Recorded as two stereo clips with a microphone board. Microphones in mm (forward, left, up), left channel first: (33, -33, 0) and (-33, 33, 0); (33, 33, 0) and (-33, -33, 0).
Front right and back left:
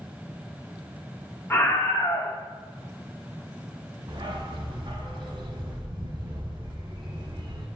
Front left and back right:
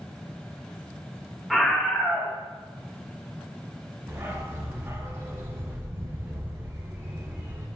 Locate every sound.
1.5 s a scream: 45° right, 1.1 m
4.1 s a dog barking: 165° left, 1.6 m